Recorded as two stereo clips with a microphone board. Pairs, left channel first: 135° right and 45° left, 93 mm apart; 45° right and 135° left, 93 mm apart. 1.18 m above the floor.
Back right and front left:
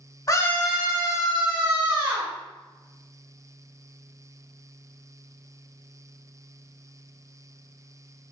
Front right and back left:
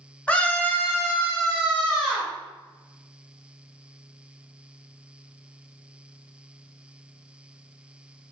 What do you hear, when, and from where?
0.3 s a scream: 115° right, 0.6 m; by 2.3 s 40° left, 1.7 m